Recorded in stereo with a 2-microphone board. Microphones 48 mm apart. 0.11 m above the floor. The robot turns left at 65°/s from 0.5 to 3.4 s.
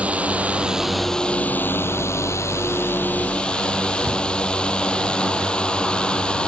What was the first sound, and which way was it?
A drone, 150° right.